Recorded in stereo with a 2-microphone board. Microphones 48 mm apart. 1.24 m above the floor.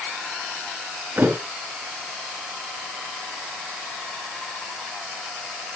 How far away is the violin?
No violin in this recording.